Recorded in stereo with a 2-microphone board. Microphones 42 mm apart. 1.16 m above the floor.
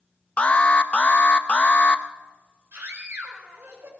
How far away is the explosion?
No explosion in this recording.